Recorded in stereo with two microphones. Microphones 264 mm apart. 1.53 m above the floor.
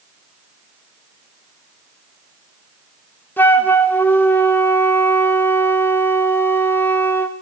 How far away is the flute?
About 0.8 m.